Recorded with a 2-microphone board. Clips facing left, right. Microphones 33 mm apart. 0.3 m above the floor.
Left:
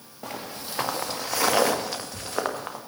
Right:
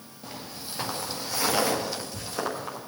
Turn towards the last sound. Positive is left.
turn(degrees=50)  # may be behind; listen again after turning